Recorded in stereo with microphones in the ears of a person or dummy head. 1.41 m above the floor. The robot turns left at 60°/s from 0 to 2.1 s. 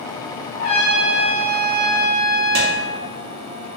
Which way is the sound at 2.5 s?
75° right (ahead or behind).